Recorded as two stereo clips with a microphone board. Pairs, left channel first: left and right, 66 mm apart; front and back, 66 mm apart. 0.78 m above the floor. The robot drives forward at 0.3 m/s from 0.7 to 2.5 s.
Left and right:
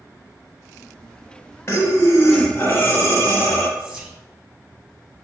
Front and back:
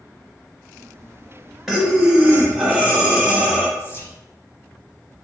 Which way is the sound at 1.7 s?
100° left.